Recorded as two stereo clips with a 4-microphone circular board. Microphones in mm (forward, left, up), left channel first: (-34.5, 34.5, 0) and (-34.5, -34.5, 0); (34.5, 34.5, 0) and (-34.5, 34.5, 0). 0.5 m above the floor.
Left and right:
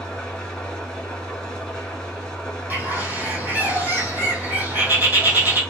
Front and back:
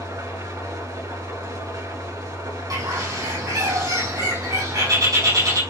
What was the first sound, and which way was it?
An engine running, 170° left.